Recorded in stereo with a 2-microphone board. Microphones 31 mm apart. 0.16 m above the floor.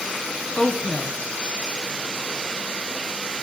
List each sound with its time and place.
0.6 s a woman speaking: 30° left (ahead or behind), 1.2 m